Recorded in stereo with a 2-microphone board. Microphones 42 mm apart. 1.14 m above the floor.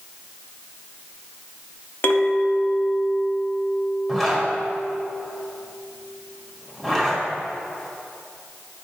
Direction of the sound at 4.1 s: 10° left (ahead or behind).